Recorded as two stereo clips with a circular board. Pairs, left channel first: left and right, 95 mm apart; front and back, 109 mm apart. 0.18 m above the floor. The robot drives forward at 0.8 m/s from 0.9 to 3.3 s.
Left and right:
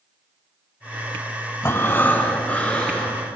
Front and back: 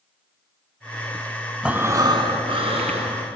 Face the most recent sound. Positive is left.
turn(degrees=170)